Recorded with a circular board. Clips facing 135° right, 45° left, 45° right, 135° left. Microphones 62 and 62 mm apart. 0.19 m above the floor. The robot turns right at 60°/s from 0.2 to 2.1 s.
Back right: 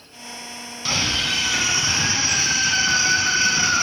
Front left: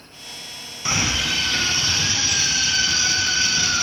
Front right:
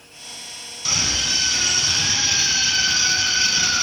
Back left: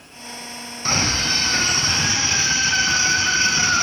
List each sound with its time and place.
0.8 s a scream: 105° left, 1.3 m; by 3.9 s straight behind, 1.3 m